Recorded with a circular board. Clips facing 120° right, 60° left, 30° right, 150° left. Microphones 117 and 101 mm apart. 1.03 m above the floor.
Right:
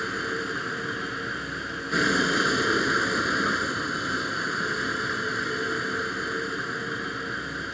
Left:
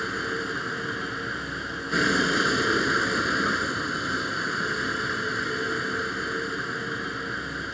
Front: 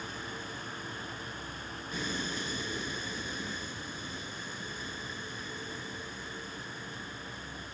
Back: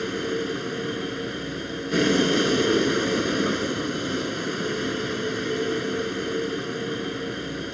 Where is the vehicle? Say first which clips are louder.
Even, back 15 dB; 150° left.